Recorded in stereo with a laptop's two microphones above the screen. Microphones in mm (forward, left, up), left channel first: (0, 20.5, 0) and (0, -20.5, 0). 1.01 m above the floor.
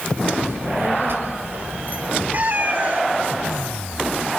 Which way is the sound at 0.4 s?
70° right (ahead or behind).